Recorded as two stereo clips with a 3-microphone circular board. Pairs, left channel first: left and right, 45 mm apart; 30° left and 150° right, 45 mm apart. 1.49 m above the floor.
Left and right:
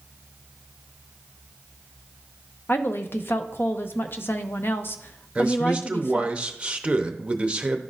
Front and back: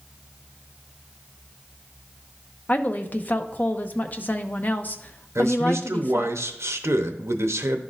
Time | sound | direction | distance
2.7 | a woman speaking | 70° left | 0.6 m
5.3 | a man speaking | 155° right | 0.7 m